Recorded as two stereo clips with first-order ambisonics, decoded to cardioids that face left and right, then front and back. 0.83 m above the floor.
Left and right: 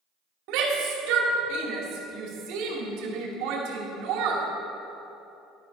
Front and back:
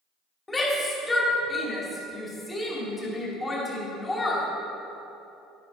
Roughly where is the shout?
Right.